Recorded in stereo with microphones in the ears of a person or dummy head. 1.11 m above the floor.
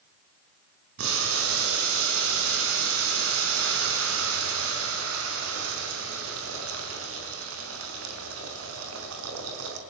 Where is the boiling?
80° right, 4.5 m.